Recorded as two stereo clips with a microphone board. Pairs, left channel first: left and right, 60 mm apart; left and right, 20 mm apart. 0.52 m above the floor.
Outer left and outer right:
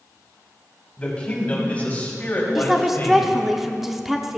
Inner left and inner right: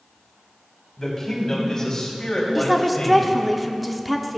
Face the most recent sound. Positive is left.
turn(degrees=-5)  # may be behind; listen again after turning